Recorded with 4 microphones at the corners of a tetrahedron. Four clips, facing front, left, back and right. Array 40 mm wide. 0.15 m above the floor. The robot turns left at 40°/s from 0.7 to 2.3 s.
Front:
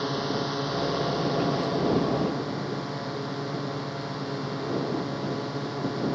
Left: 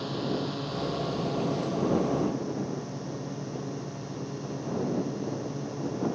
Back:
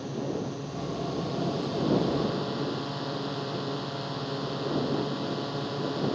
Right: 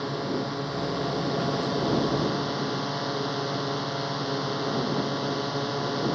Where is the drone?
20° right; by 6.2 s 85° right.